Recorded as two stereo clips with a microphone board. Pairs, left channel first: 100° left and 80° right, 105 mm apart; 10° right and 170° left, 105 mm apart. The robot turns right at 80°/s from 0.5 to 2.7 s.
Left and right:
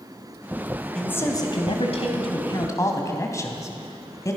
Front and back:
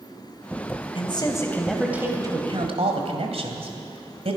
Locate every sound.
0.9 s a man speaking: 15° left, 2 m; by 4.4 s 155° left, 2 m